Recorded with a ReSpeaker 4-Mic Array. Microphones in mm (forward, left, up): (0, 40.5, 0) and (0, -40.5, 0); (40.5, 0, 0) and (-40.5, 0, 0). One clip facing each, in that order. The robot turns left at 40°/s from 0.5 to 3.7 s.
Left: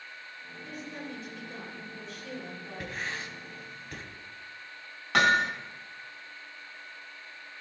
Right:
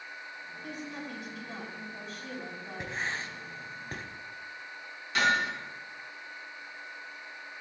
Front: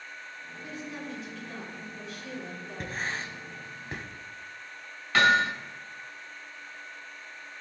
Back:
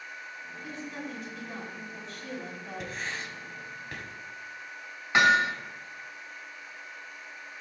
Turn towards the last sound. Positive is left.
turn(degrees=110)